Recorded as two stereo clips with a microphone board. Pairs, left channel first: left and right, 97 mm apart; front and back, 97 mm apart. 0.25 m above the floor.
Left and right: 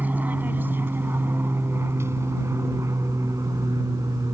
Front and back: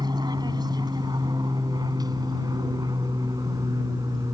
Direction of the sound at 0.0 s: 160° right.